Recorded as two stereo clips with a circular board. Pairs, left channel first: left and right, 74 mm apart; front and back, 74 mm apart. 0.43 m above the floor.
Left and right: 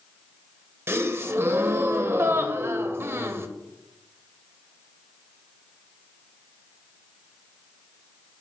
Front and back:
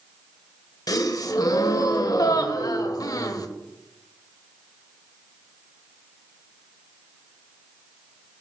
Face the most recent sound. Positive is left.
turn(degrees=-35)